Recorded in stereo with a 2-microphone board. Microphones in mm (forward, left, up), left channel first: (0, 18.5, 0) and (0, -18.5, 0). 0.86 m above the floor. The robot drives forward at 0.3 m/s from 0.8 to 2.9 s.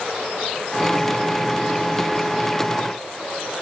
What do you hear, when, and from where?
Only background noise.